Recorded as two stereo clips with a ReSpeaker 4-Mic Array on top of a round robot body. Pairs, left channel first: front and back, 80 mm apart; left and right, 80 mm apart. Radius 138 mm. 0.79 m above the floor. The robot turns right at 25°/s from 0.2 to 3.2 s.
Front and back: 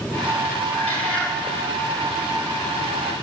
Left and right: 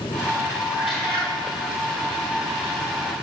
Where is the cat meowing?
65° left, 5.5 m; by 1.3 s 80° left, 5.5 m.